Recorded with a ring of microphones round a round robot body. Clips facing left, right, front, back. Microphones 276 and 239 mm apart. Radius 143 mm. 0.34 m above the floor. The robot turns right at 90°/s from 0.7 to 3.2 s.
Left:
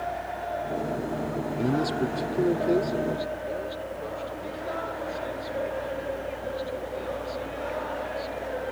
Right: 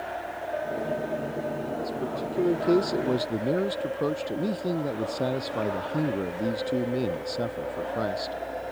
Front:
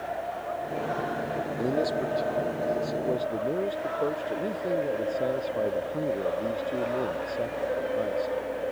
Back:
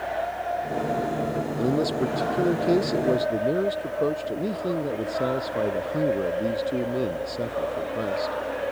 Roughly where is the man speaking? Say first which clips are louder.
Left 6 dB, back 4 dB; left.